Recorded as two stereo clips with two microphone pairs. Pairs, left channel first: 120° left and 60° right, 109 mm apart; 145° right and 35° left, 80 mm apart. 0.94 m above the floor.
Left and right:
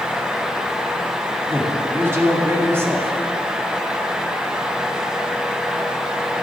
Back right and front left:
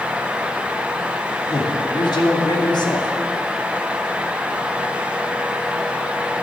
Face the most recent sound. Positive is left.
turn(degrees=-125)